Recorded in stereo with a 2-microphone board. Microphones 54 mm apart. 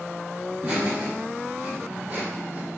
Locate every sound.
0.5 s laughter: 45° right (ahead or behind), 1.6 m; by 2.7 s 65° right (ahead or behind), 3.5 m